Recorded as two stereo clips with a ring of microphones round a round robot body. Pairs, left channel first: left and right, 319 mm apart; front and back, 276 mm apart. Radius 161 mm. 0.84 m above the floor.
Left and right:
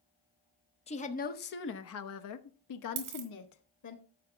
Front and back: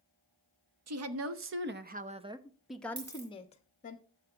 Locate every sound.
0.9 s a woman speaking: 160° left, 1.3 m; by 4.0 s 60° left, 1.4 m
3.0 s a dropped coin: 120° right, 2.5 m